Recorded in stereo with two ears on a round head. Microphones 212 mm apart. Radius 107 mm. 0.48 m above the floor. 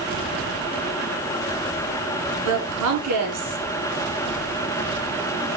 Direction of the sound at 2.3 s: 75° right (ahead or behind).